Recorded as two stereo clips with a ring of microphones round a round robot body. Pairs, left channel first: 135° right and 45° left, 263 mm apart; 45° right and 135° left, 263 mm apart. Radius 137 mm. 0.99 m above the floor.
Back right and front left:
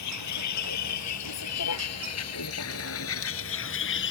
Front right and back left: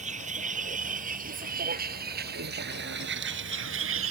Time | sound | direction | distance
0.0 | a vehicle | 160° right | ?